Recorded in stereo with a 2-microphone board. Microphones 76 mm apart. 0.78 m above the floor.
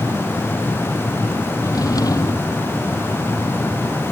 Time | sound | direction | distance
1.6 | a drawer | 55° left (ahead or behind) | ?